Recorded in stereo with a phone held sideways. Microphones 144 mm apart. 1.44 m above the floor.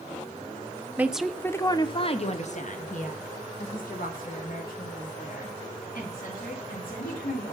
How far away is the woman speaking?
About 0.7 m.